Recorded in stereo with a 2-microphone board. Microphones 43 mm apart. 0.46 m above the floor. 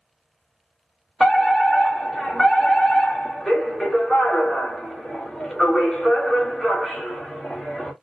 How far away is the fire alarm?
About 2 m.